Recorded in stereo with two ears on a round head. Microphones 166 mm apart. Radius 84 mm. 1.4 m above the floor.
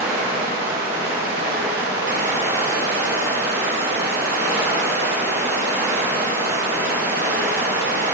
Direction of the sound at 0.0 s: 55° right (ahead or behind).